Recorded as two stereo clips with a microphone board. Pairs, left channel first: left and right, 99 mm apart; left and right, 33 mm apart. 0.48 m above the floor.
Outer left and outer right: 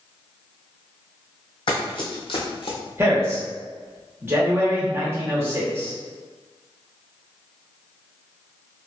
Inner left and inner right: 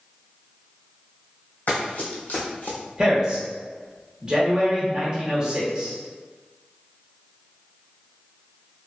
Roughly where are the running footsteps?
Left.